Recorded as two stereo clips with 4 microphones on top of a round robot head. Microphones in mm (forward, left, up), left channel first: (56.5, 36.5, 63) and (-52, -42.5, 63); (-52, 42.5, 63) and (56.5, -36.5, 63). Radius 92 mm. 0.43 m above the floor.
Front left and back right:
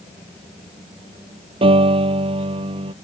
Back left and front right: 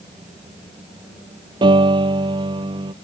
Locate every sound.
1.6 s a piano: 95° right